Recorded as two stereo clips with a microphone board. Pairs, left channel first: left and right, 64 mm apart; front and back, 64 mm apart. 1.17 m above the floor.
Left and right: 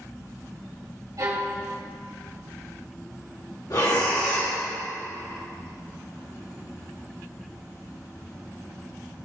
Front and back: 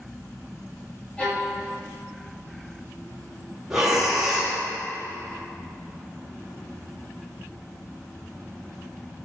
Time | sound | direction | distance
1.2 | a violin | 70° right | 3 m
3.7 | breathing | 100° left | 3 m